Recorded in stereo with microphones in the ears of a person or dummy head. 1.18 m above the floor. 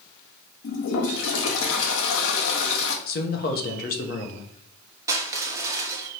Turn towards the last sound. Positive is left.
turn(degrees=-10)  # may be behind; listen again after turning